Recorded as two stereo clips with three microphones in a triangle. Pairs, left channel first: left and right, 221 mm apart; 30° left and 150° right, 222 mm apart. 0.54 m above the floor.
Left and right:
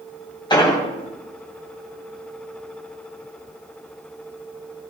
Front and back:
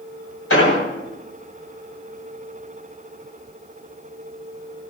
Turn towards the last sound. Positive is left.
turn(degrees=20)